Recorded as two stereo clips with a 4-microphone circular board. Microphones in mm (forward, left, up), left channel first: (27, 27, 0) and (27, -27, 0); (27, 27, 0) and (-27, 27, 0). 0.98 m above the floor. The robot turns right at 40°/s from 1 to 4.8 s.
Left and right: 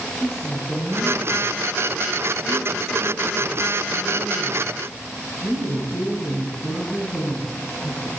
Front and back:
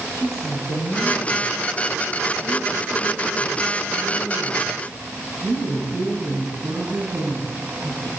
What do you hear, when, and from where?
0.1 s a woman speaking: 10° right, 7.5 m; by 8.1 s 145° left, 7.5 m